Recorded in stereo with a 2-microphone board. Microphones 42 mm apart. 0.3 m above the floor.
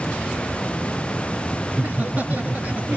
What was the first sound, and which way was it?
Laughter, 45° right (ahead or behind).